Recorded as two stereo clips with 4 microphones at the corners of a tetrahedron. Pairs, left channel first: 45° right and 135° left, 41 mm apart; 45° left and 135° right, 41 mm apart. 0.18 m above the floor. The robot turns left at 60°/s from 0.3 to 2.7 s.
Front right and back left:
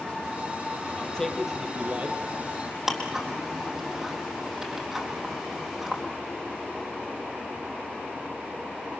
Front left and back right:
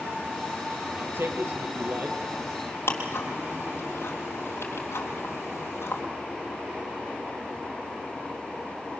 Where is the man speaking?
105° right, 4 m; by 2.2 s straight behind, 4 m.